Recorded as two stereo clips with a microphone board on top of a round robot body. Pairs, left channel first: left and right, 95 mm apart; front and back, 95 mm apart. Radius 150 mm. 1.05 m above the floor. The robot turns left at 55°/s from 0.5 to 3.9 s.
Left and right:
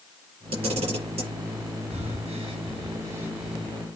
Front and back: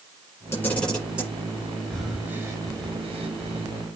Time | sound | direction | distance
0.5 | a camera shutter | 65° right | 5.5 m
1.9 | breathing | 85° right | 2.5 m